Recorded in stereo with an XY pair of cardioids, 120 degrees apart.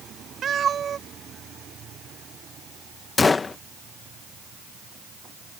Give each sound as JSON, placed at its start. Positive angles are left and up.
{"t": 0.4, "sound": "a cat meowing", "azimuth_deg": -45}
{"t": 3.2, "sound": "a gunshot", "azimuth_deg": 25}